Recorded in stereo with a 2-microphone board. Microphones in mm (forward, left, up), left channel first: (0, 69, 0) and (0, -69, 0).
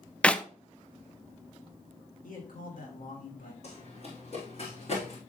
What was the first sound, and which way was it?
A clap, 10° left (ahead or behind).